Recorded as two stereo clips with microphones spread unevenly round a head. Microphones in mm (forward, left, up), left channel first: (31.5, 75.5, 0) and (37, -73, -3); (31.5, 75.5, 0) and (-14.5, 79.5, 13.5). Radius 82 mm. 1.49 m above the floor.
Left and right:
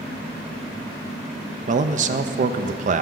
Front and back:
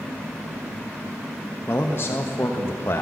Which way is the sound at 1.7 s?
55° right.